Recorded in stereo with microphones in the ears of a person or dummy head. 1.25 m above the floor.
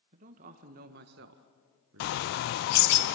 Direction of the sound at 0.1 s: 40° right (ahead or behind).